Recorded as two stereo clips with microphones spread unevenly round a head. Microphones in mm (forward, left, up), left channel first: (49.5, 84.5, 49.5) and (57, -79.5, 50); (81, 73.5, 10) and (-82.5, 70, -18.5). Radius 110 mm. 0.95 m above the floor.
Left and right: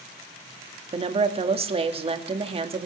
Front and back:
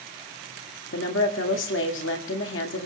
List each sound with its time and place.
0.9 s a woman speaking: 35° right, 1.8 m